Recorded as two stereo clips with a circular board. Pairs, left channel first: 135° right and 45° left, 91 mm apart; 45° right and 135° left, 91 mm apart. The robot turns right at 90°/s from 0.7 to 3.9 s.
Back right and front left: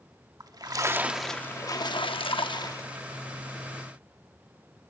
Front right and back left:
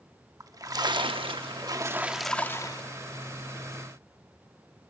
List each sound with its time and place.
0.4 s a splash: 85° left, 0.9 m; by 2.9 s 75° right, 0.9 m